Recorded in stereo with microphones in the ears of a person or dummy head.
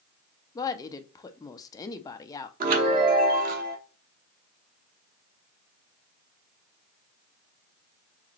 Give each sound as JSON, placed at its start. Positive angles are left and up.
{"t": 0.6, "sound": "a woman speaking", "side_deg": 20, "distance_m": 0.5}
{"t": 2.6, "sound": "a chime", "side_deg": -45, "distance_m": 0.9}